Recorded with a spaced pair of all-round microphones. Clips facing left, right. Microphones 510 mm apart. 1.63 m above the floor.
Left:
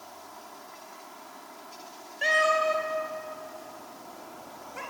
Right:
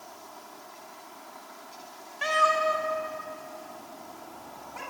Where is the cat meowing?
25° right (ahead or behind), 3.5 m; by 4.8 s 15° right (ahead or behind), 4.5 m.